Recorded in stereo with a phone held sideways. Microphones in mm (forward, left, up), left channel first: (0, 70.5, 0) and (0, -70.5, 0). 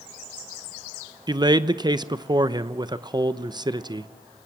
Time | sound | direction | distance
1.3 | a man speaking | 30° right (ahead or behind) | 0.7 m